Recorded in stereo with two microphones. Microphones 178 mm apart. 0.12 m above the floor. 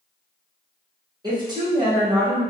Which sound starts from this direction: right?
A woman speaking, at 1.2 s.